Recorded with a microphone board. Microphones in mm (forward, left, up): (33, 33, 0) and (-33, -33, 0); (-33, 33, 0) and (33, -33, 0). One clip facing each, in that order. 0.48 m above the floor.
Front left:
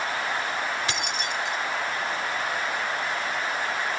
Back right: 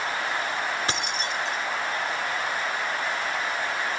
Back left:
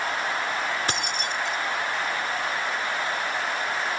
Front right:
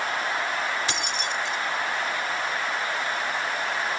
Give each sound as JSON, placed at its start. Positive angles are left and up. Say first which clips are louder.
{"t": 0.9, "sound": "keys jangling", "louder": "even, even", "azimuth_deg": 175, "distance_m": 1.1}